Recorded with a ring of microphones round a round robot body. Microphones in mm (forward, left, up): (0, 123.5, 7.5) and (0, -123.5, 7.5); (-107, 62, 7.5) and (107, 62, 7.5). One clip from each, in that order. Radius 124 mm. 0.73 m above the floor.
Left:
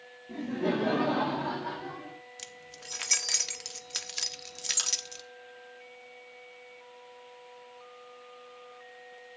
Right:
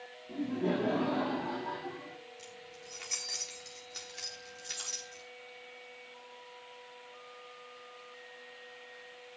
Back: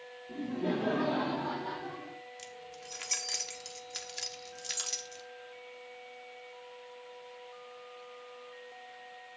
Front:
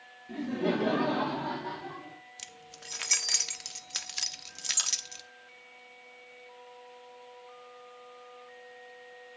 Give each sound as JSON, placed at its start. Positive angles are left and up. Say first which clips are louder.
{"t": 0.3, "sound": "laughter", "louder": "left 2 dB, front 4 dB", "azimuth_deg": 20, "distance_m": 1.6}
{"t": 2.4, "sound": "keys jangling", "louder": "left 3 dB, even", "azimuth_deg": 55, "distance_m": 0.9}